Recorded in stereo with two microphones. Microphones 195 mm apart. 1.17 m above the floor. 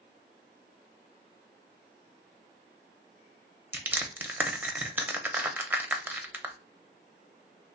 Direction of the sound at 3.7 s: 10° right (ahead or behind).